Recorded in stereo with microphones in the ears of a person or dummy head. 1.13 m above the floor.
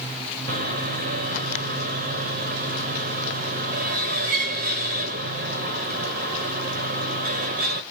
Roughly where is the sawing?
Right.